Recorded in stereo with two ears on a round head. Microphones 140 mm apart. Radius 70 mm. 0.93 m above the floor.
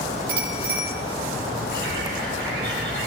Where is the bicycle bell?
65° right (ahead or behind), 8.5 m.